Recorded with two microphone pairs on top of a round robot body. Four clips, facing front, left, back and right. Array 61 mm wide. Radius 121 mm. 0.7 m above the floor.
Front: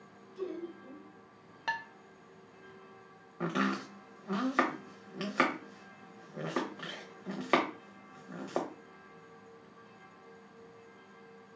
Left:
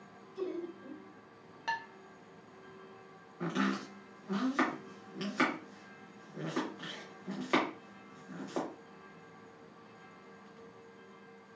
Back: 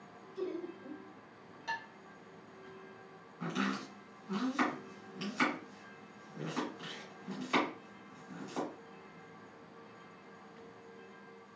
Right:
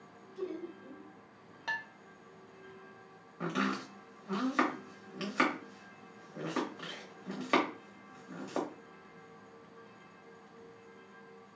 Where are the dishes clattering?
10° left, 0.8 m.